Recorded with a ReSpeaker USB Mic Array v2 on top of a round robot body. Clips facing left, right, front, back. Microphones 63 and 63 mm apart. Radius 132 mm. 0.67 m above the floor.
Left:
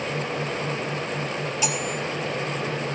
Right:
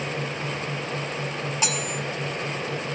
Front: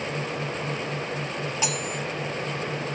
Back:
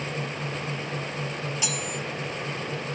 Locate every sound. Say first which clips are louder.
1.6 s cutlery clinking: even, front 3 dB; 50° right, 1.2 m